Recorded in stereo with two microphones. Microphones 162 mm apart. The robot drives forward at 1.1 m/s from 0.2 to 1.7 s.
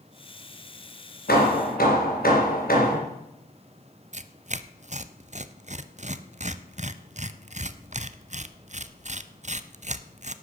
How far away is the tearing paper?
About 0.6 m.